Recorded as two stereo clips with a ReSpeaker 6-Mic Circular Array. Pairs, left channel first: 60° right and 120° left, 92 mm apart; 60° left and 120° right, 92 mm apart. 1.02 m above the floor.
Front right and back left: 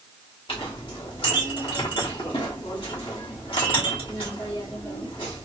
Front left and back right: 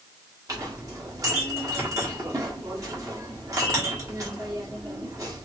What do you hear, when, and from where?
0.5 s a clink: 65° right, 1.5 m